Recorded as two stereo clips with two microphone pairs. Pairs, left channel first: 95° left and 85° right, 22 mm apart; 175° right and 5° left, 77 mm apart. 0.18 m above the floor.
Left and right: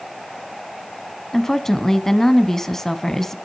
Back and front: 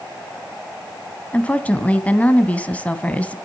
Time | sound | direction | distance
1.3 | a woman speaking | 135° left | 1.3 m